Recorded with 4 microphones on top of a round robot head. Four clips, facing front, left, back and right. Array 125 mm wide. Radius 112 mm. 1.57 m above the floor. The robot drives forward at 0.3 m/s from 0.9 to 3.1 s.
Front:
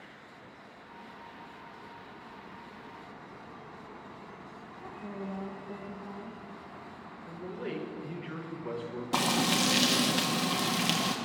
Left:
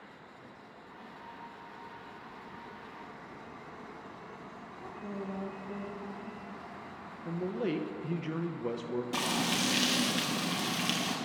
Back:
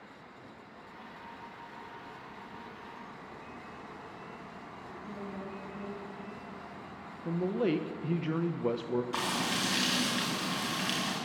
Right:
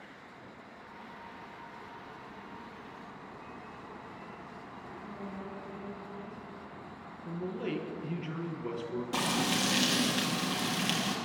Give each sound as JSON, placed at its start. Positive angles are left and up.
{"t": 4.8, "sound": "a woman speaking", "azimuth_deg": 45, "distance_m": 2.5}
{"t": 7.2, "sound": "a man speaking", "azimuth_deg": 165, "distance_m": 1.0}
{"t": 9.1, "sound": "frying", "azimuth_deg": -5, "distance_m": 1.2}